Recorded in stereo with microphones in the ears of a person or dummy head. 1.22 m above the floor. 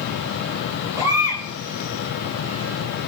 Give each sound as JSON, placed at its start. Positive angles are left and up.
{"t": 1.0, "sound": "a baby crying", "side_deg": -15, "distance_m": 4.0}